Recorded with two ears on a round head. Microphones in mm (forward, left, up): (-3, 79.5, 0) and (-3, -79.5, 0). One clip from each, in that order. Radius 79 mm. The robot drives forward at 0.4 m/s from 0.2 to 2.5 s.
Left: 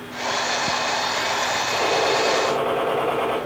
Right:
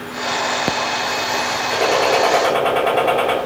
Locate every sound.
1.7 s a gunshot: 55° right (ahead or behind), 5 m; by 3.4 s 50° right (ahead or behind), 5.5 m